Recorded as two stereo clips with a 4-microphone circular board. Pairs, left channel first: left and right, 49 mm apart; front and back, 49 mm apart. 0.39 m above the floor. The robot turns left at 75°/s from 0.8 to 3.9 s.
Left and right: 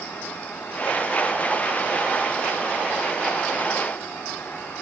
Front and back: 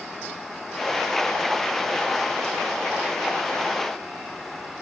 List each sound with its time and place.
Only background noise.